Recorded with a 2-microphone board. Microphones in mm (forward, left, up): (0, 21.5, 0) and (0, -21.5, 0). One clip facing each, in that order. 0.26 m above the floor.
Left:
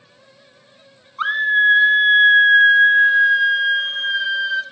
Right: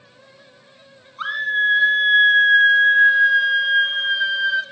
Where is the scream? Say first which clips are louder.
Left 4 dB; 25° left (ahead or behind), 1.4 m; by 4.6 s 5° right (ahead or behind), 2.5 m.